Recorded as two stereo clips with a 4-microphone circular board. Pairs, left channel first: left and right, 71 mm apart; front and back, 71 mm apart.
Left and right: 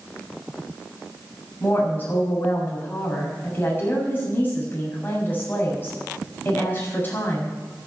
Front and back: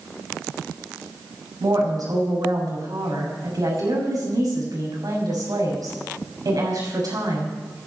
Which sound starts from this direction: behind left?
A woman speaking, at 1.6 s.